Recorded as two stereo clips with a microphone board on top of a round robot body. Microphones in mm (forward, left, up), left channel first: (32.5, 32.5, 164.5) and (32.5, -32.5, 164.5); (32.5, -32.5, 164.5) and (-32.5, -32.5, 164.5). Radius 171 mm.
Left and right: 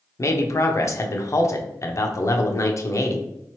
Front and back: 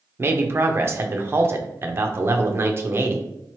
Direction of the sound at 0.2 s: 130° left.